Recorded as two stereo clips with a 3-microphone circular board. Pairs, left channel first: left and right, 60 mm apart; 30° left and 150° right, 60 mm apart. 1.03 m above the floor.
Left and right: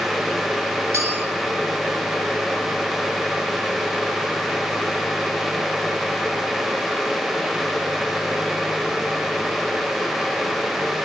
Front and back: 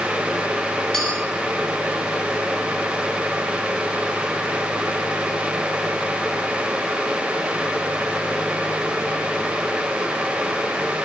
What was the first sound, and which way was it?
A clink, 50° right.